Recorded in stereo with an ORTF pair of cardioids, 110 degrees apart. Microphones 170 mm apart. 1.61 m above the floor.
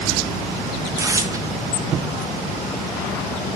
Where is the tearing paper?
20° right, 0.7 m.